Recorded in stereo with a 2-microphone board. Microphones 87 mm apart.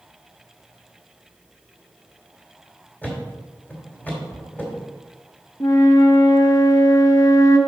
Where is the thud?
20° left (ahead or behind), 2.5 m.